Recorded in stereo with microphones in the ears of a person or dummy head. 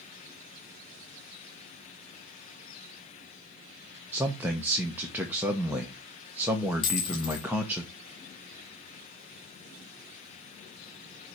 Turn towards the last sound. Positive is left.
turn(degrees=30)  # may be behind; listen again after turning